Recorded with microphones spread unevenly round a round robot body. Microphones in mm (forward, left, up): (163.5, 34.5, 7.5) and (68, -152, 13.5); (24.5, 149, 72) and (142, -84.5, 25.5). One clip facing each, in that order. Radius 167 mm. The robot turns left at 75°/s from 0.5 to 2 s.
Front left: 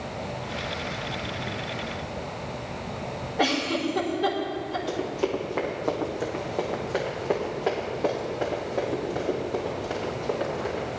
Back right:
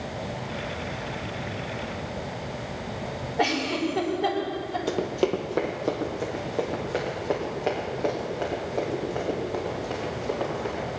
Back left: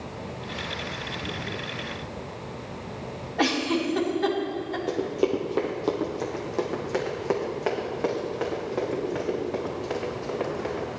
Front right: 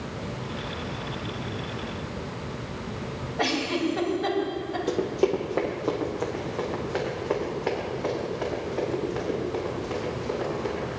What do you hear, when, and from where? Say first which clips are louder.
3.4 s a giggle: even, back left 2 dB; 135° left, 3 m
4.9 s running footsteps: back right 3 dB, front right 1 dB; 140° right, 1.6 m; by 11.0 s 140° left, 9.5 m